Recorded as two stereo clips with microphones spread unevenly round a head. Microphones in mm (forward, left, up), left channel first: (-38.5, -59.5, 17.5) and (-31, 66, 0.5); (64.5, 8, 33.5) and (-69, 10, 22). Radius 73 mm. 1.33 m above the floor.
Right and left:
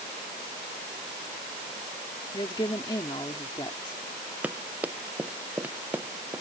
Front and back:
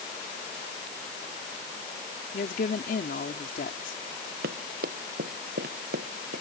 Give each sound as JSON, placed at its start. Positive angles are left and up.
{"t": 2.3, "sound": "a woman speaking", "azimuth_deg": -30}
{"t": 4.4, "sound": "running footsteps", "azimuth_deg": 165}